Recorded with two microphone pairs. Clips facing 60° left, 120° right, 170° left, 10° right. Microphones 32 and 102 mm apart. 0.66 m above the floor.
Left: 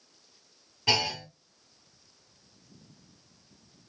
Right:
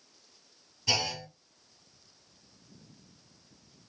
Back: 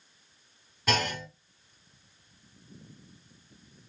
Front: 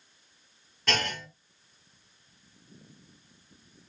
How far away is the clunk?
About 1.5 m.